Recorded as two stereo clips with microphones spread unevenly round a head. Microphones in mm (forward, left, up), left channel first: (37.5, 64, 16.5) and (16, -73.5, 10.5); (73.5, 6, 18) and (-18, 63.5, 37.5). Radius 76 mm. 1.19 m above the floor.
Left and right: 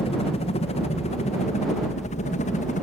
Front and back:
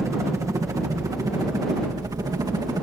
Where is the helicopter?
90° left; by 2.8 s 95° left.